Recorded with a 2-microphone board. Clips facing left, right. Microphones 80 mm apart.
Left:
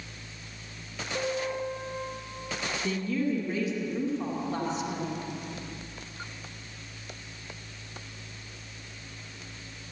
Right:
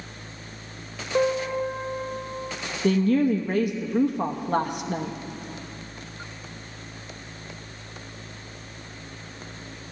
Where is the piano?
50° right (ahead or behind), 1.0 m.